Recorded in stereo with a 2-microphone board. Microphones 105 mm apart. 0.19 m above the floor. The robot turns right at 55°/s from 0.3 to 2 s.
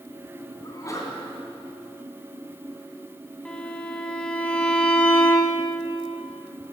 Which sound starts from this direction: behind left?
A sneeze, at 0.6 s.